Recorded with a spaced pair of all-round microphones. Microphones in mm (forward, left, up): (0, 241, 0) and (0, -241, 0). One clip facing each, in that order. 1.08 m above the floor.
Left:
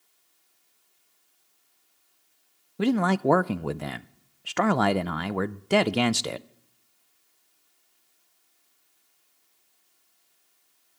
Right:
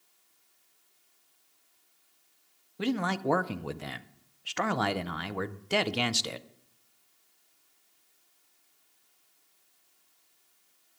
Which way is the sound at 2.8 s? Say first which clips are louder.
Left 7 dB; 65° left (ahead or behind).